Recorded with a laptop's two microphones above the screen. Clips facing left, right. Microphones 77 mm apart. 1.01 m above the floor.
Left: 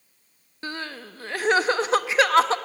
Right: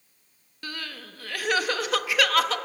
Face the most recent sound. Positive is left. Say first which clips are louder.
# left 4 dB
turn(degrees=25)  # may be behind; listen again after turning